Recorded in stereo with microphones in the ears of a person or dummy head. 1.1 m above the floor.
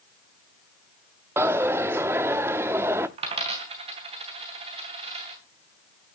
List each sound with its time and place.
1.4 s a dropped coin: 15° right (ahead or behind), 0.8 m
3.2 s a dropped coin: 30° right (ahead or behind), 2.5 m